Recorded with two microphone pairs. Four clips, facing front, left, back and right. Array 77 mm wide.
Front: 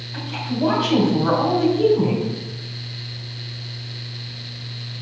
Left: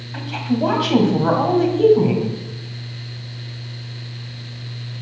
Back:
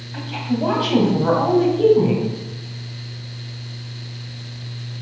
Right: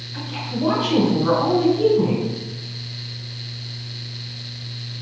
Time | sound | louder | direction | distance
0.1 | a woman speaking | left 6 dB, back 2 dB | 95° left | 2 m